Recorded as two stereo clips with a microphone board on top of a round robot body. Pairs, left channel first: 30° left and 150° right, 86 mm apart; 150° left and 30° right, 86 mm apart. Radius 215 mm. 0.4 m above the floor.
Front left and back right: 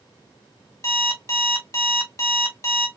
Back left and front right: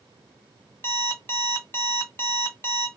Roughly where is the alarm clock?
Left.